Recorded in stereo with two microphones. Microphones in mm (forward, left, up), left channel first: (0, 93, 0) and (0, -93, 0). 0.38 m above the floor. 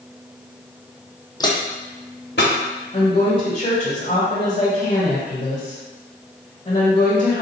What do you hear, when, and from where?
1.4 s footsteps: 20° left (ahead or behind), 0.7 m; by 2.5 s 75° left (ahead or behind), 1.6 m
2.9 s a woman speaking: 35° left (ahead or behind), 1.5 m